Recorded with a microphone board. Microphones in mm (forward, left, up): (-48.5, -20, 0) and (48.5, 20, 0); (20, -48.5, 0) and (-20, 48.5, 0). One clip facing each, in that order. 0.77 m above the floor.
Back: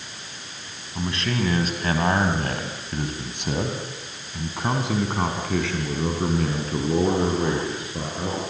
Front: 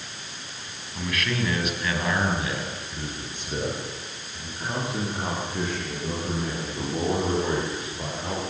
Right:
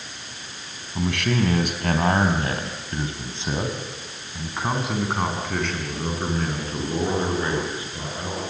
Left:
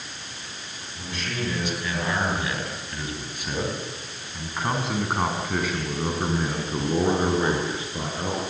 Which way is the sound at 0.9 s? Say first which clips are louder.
Back 2 dB, right 9 dB; 90° right.